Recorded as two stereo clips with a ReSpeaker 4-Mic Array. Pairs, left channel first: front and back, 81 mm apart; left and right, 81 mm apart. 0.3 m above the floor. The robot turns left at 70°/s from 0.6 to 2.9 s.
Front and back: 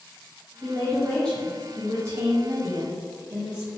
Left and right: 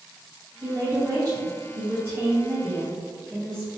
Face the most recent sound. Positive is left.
turn(degrees=165)